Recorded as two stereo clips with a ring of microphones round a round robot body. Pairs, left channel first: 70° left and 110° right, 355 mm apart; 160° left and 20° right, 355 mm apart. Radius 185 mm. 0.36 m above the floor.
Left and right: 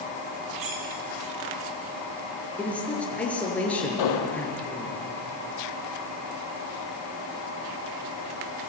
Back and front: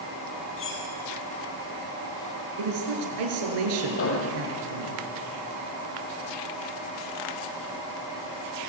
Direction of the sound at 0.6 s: 145° right.